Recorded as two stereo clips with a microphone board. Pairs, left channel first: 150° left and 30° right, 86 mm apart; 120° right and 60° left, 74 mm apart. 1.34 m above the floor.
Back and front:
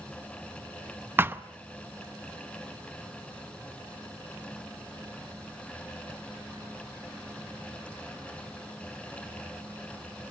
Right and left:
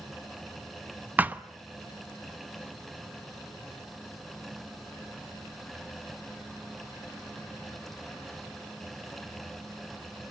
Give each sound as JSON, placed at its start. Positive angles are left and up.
{"t": 1.2, "sound": "a thud", "azimuth_deg": 15, "distance_m": 0.7}